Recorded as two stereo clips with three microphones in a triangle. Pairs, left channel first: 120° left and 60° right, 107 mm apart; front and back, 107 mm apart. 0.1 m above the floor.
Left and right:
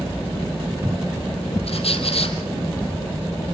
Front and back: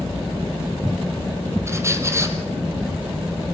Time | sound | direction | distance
1.7 | a squeak | 120° left | 1.9 m